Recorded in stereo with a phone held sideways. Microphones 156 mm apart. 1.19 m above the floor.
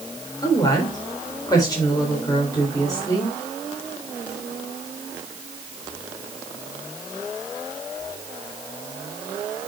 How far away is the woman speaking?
About 4 m.